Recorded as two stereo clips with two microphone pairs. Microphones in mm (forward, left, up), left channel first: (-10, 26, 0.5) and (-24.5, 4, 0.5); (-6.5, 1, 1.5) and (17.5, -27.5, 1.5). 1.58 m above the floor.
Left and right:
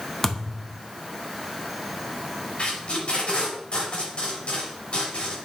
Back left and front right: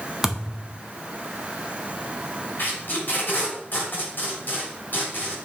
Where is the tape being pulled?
95° left, 3.5 m.